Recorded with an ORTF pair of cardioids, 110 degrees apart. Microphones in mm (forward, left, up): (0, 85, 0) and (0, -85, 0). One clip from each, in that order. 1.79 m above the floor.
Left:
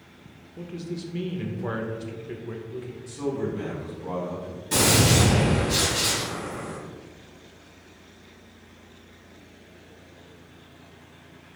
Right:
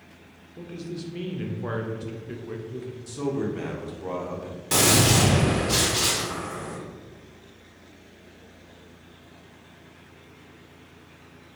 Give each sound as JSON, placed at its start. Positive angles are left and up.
{"t": 0.6, "sound": "a man speaking", "azimuth_deg": 0, "distance_m": 0.6}
{"t": 3.1, "sound": "a man speaking", "azimuth_deg": -50, "distance_m": 1.2}
{"t": 4.7, "sound": "a gunshot", "azimuth_deg": -55, "distance_m": 1.6}